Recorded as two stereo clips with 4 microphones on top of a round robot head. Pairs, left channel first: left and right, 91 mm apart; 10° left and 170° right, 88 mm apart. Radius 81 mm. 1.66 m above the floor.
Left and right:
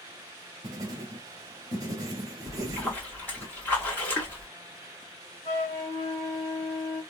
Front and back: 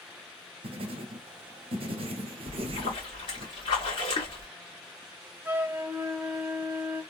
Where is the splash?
20° left, 1.7 m.